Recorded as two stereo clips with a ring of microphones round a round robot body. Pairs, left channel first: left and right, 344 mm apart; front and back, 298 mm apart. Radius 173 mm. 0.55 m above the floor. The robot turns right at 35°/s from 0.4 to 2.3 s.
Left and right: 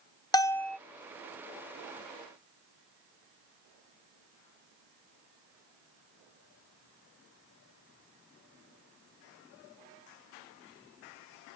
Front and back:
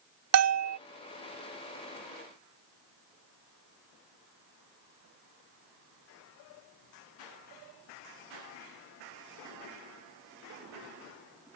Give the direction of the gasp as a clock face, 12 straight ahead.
I don't hear a gasp.